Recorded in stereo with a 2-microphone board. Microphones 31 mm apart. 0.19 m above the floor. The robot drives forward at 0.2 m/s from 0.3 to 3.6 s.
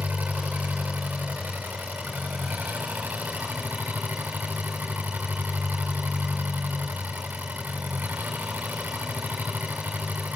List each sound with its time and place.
0.0 s an engine running: 80° right, 5 m; by 10.4 s 85° right, 5 m